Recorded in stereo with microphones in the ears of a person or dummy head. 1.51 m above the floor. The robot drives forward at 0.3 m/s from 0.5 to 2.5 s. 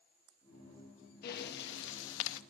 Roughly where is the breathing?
Left.